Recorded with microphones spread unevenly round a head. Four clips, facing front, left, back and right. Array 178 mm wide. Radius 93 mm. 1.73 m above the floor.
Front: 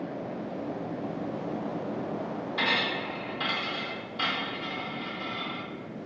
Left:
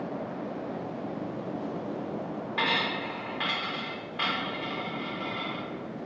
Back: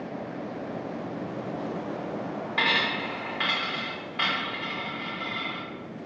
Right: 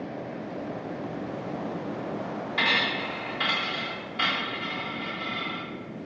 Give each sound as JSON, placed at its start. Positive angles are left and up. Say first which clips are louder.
{"t": 2.6, "sound": "a dropped coin", "louder": "right 1 dB, back 3 dB", "azimuth_deg": 150, "distance_m": 1.4}